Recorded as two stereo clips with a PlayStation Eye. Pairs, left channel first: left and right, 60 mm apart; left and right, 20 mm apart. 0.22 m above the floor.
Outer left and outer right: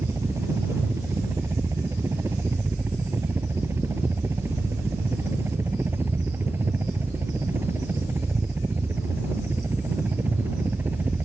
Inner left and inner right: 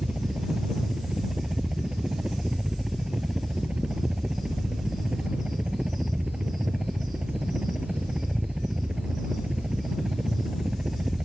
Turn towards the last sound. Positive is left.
turn(degrees=-35)  # may be behind; listen again after turning